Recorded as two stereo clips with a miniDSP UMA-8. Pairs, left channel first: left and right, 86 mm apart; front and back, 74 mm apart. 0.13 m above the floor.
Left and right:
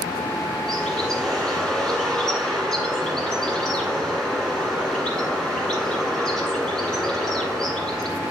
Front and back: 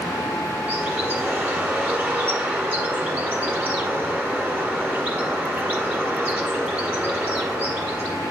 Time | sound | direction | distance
0.7 | a bird | 165° left | 1.7 m